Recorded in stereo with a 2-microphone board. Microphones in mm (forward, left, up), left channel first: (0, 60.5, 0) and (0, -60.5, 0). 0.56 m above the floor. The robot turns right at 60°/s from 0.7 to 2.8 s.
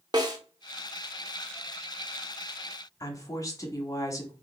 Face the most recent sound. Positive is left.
turn(degrees=30)  # may be behind; listen again after turning